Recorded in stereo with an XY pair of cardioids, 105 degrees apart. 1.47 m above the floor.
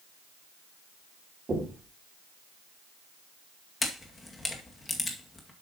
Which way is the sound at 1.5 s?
30° right.